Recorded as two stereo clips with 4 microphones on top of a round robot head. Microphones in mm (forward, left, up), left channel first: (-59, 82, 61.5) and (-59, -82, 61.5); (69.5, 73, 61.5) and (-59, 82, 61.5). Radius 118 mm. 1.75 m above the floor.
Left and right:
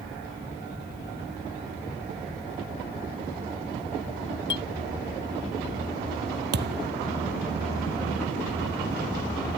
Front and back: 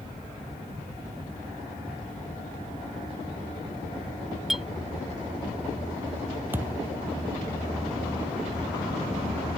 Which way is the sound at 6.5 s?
105° right.